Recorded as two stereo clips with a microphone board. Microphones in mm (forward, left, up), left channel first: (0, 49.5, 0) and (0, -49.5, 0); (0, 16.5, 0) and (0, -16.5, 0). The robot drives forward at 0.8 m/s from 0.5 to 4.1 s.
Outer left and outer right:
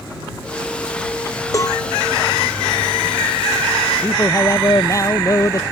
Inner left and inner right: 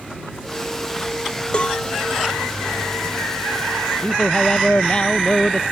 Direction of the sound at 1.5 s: 35° left (ahead or behind).